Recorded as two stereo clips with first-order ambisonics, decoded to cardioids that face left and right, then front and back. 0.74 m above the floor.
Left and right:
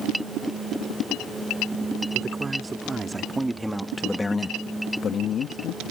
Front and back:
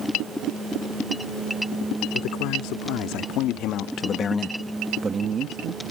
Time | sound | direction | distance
2.1 | a man speaking | 20° right | ?